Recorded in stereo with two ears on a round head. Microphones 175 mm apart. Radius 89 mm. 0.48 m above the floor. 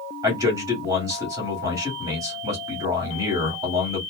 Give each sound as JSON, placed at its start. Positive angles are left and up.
{"t": 0.2, "sound": "a man speaking", "side_deg": -15, "distance_m": 1.6}